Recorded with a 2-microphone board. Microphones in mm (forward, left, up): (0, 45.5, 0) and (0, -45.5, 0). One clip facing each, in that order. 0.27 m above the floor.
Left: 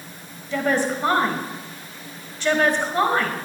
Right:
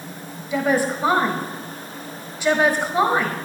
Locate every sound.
0.5 s a woman speaking: 10° right (ahead or behind), 1.5 m